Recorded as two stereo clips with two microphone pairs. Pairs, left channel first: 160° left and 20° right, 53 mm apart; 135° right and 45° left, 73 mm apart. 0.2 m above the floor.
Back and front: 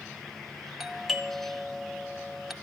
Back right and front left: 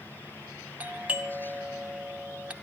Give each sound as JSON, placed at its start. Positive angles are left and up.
{"t": 0.8, "sound": "a doorbell", "azimuth_deg": 70, "distance_m": 1.4}